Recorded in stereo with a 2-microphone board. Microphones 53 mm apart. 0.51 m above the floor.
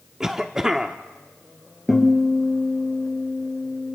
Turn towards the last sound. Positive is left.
turn(degrees=-5)  # may be behind; listen again after turning